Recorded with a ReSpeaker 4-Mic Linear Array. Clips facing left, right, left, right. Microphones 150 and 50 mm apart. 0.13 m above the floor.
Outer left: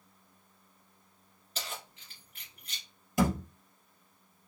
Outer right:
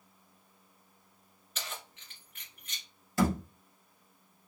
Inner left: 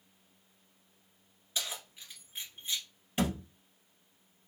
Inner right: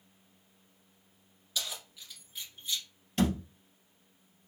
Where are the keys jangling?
35° left (ahead or behind), 1.4 m.